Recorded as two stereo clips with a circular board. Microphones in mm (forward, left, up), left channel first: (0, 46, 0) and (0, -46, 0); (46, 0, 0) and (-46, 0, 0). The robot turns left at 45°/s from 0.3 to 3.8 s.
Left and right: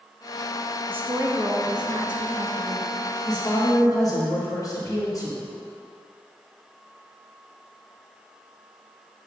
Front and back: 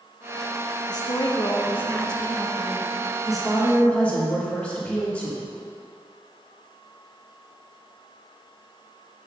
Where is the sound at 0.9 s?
25° right, 0.8 m; by 2.9 s 115° right, 0.8 m.